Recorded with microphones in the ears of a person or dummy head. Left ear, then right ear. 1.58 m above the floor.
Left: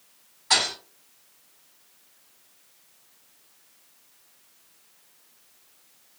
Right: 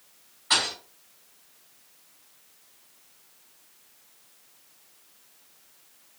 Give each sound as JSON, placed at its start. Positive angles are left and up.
{"t": 0.5, "sound": "a thud", "side_deg": 5, "distance_m": 1.9}